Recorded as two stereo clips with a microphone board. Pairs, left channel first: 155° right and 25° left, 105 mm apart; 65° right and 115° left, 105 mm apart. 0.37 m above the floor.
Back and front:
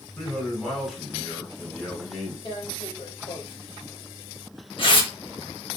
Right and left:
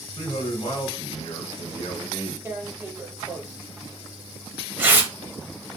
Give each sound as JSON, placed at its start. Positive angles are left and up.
{"t": 0.2, "sound": "a man speaking", "azimuth_deg": -85, "distance_m": 1.8}
{"t": 2.5, "sound": "tearing paper", "azimuth_deg": 180, "distance_m": 0.7}